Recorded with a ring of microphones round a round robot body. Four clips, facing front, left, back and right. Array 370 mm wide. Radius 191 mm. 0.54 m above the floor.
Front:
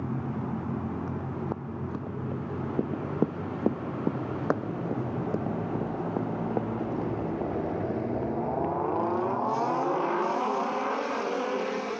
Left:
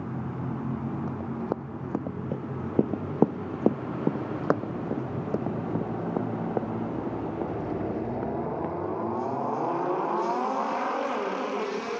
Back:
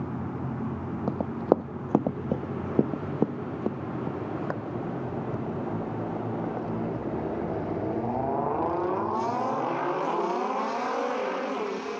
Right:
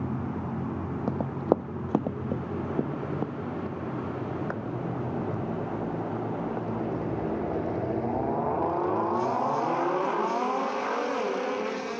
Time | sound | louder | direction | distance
1.1 | running footsteps | right 5 dB, back 8 dB | 150° right | ?